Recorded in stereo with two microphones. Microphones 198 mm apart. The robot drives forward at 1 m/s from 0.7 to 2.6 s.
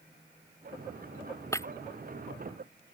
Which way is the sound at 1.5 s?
15° left (ahead or behind).